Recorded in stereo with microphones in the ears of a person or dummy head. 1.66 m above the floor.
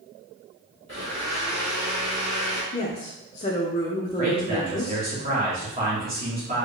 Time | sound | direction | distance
0.9 | a blender | 35° right (ahead or behind) | 1.6 m
2.7 | a woman speaking | 20° left (ahead or behind) | 0.6 m
4.2 | a man speaking | 35° right (ahead or behind) | 1.4 m